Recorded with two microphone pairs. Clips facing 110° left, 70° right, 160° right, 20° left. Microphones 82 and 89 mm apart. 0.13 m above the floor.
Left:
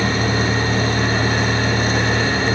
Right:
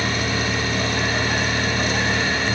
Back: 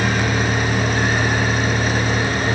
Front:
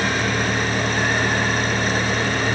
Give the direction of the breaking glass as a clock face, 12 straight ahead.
No breaking glass in this recording.